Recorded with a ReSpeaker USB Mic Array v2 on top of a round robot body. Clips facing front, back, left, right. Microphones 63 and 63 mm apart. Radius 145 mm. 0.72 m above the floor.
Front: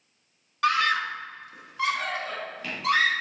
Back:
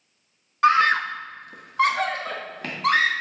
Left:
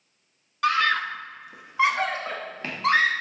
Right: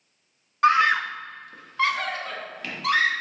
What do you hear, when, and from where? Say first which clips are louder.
0.6 s a scream: back 6 dB, right 4 dB; 135° right, 0.8 m; by 3.1 s 145° left, 1.7 m